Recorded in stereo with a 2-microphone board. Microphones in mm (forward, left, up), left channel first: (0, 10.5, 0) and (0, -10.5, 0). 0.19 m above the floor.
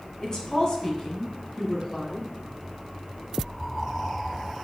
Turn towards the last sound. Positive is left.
turn(degrees=35)  # may be behind; listen again after turning